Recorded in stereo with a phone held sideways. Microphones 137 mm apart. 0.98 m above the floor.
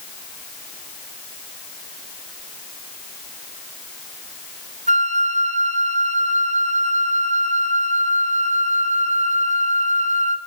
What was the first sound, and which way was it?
A flute, 55° right (ahead or behind).